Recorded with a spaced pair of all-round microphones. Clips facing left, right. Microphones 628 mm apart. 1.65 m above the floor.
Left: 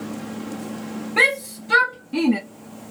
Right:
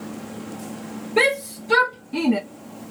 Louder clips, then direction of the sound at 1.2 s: Right 7 dB; 10° left (ahead or behind).